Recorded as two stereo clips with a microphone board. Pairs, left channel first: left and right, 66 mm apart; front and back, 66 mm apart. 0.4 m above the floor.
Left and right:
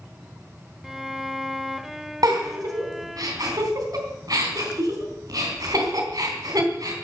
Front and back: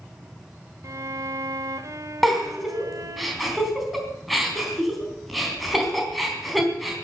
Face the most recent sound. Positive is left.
turn(degrees=-90)